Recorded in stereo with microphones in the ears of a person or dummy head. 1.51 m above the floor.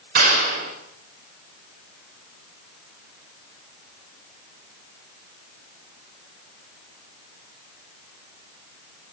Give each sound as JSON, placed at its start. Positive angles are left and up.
{"t": 0.1, "sound": "a clap", "side_deg": -50, "distance_m": 6.5}